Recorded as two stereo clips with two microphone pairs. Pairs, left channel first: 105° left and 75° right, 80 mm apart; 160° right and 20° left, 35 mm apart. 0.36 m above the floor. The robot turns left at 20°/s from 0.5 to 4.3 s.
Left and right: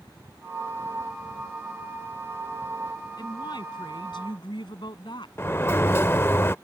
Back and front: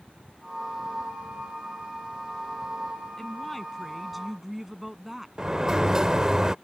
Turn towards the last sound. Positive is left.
turn(degrees=70)